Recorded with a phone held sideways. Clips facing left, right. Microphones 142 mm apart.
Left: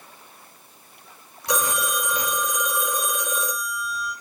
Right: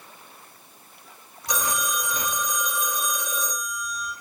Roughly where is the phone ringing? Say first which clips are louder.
Left 3 dB; left.